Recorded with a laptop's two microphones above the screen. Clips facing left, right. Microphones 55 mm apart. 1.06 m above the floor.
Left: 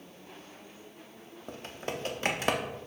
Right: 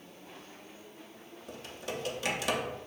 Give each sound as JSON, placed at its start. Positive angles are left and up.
{"t": 1.5, "sound": "typing on a keyboard", "side_deg": 35, "distance_m": 0.6}